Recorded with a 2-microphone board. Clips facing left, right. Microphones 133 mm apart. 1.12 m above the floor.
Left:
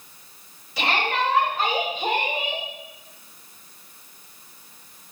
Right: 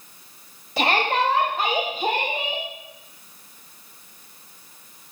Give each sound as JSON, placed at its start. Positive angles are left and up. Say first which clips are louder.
{"t": 0.8, "sound": "a shout", "louder": "right 3 dB", "side_deg": -50, "distance_m": 2.0}